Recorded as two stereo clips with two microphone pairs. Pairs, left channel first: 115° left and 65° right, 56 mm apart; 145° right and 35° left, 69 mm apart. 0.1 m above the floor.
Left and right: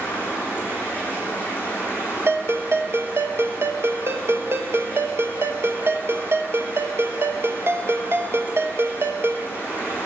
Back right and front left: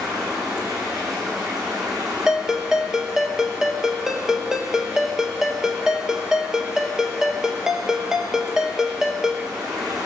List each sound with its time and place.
0.0 s running water: 55° left, 4.5 m
2.3 s a ringtone: 40° right, 1.0 m